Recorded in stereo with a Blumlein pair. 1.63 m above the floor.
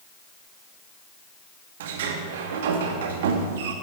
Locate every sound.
1.8 s a sliding door: 55° right, 2 m